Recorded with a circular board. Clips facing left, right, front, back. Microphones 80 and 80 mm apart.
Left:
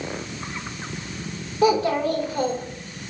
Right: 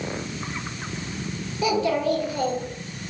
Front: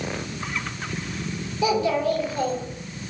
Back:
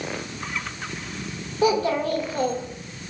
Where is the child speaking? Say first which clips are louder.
Left 3 dB, back 1 dB; 140° left, 1.3 m.